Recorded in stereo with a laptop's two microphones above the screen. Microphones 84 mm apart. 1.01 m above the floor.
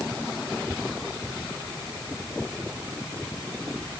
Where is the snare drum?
No snare drum in this recording.